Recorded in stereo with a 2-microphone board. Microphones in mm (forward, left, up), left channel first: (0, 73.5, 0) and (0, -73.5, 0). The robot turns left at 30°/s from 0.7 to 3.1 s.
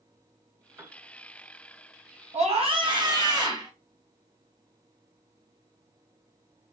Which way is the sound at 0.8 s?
15° right (ahead or behind).